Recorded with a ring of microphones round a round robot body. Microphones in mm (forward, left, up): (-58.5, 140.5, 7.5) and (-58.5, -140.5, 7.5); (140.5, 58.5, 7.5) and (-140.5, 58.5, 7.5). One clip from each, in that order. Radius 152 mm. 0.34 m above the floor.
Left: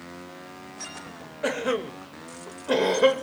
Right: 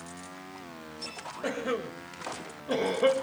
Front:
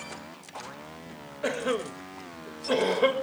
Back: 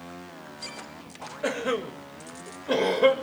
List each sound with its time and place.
1.4 s a cough: 95° left, 1.3 m